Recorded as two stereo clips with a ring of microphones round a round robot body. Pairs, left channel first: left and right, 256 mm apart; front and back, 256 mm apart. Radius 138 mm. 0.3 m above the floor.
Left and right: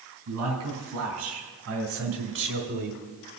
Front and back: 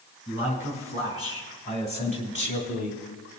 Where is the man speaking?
65° right, 2.5 m; by 3.0 s 50° right, 1.2 m.